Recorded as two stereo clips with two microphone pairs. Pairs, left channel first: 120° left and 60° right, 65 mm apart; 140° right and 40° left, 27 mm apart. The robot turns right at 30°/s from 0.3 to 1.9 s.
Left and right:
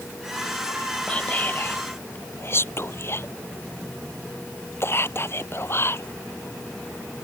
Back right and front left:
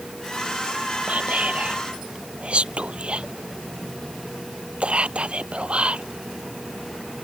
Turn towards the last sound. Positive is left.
turn(degrees=80)